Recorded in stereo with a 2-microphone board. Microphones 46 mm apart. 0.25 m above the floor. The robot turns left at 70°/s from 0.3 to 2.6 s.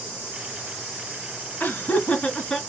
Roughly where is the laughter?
Left.